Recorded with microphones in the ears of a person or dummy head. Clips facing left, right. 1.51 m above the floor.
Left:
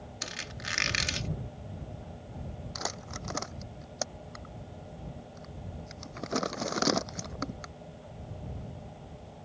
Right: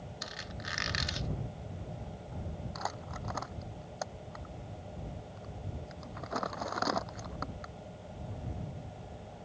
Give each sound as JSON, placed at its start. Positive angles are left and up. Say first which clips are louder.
{"t": 0.2, "sound": "a squeak", "louder": "left 2 dB", "side_deg": 40}
{"t": 2.8, "sound": "crumpling", "louder": "left 2 dB", "side_deg": 45}